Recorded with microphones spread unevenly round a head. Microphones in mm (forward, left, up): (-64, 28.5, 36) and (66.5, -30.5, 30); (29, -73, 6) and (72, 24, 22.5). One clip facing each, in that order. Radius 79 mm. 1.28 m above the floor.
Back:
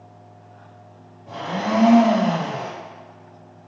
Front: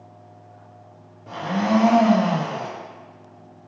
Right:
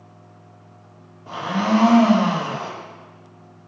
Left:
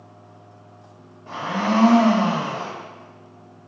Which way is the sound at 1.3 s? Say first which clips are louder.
Front 3 dB, right 2 dB; 40° right.